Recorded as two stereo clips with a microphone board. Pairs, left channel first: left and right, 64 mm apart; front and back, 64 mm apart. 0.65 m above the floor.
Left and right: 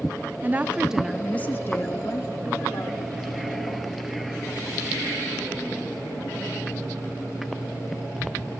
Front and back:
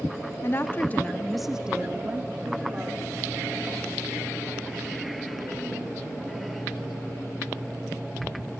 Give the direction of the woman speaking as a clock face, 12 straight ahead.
1 o'clock.